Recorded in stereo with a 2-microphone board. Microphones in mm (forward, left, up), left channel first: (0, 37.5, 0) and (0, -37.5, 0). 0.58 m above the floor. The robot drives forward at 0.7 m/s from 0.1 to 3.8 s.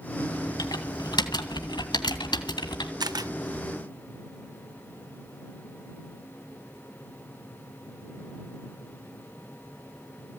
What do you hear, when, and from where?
0.6 s typing on a keyboard: 60° left (ahead or behind), 2.5 m; by 2.9 s 75° left (ahead or behind), 2 m
3.0 s a camera shutter: 65° right (ahead or behind), 0.6 m; by 3.3 s 55° right (ahead or behind), 0.6 m